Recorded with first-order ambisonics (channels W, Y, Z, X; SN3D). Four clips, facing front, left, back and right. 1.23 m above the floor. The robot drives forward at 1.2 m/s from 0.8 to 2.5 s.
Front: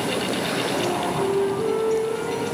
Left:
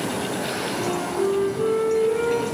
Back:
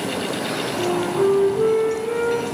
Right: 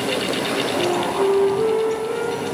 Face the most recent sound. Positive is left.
turn(degrees=-170)